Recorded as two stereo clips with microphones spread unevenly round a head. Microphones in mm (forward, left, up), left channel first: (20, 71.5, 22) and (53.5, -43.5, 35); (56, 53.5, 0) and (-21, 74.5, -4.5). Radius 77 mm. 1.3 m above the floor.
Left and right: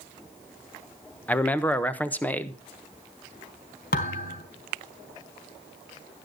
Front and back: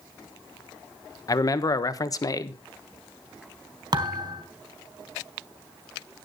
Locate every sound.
1.3 s a man speaking: 30° left, 1.2 m
3.9 s a thud: 135° left, 3 m